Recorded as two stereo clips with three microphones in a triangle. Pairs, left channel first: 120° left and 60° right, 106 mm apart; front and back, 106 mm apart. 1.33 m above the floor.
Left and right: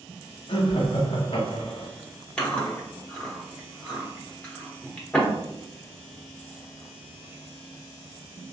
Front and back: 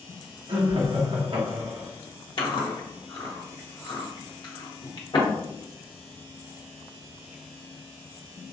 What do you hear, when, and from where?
0.5 s laughter: 150° left, 0.9 m
2.4 s chewing: 40° left, 1.1 m